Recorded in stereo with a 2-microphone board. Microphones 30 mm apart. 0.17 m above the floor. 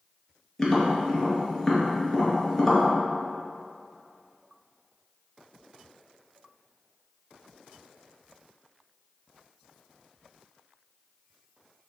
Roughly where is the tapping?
Centre.